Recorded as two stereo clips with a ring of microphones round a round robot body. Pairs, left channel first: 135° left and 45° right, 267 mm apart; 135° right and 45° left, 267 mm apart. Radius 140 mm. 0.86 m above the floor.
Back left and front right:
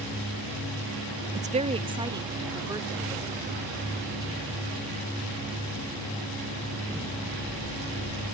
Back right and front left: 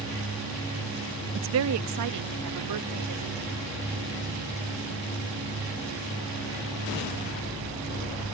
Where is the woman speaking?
10° left; by 3.5 s 35° left.